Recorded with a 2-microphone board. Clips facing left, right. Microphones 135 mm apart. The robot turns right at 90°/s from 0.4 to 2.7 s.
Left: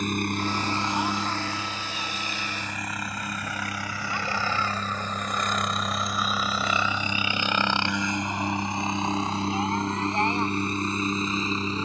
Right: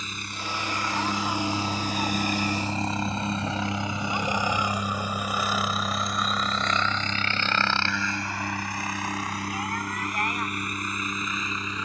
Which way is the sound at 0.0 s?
55° left (ahead or behind).